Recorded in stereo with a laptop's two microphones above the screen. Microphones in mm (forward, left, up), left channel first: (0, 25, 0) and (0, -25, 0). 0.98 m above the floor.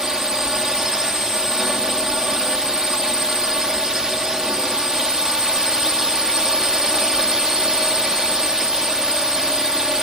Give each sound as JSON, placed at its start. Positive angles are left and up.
{"t": 0.0, "sound": "a drone", "side_deg": -10}